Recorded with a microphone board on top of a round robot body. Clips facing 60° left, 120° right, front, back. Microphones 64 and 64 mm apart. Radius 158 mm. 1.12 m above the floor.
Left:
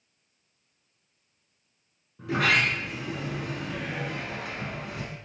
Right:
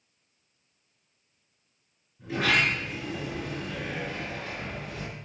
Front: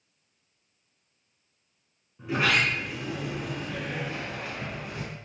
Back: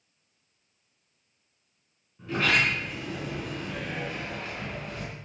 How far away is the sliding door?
About 5.5 m.